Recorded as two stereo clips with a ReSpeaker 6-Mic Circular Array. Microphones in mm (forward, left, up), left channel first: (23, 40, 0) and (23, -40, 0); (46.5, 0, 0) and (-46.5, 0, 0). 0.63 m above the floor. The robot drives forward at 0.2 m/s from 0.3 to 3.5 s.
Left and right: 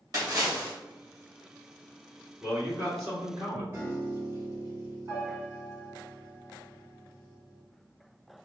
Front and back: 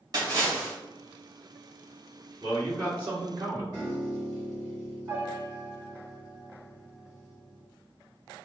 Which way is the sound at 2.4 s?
135° right.